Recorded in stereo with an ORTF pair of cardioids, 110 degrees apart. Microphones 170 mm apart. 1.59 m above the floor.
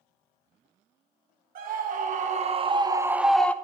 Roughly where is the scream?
Ahead right.